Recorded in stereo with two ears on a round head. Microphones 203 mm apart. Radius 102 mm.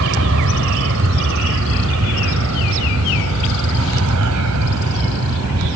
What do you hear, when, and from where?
0.0 s an aircraft: 60° right (ahead or behind); by 5.8 s 75° right (ahead or behind)